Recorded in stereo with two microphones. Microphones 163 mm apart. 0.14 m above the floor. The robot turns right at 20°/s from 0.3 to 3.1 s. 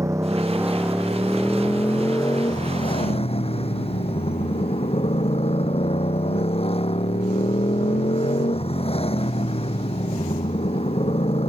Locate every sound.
0.0 s a motorcycle: 20° right; by 11.5 s 40° left